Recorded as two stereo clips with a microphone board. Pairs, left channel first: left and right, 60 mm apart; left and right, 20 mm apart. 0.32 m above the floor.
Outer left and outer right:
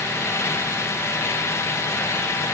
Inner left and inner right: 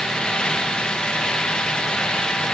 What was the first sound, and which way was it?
Only background noise.